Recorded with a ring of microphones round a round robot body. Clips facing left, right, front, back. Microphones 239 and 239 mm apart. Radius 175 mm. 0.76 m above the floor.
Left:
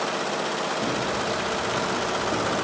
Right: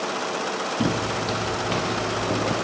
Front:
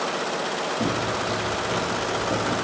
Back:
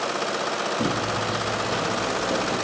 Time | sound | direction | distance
0.8 | footsteps | 100° right | 4 m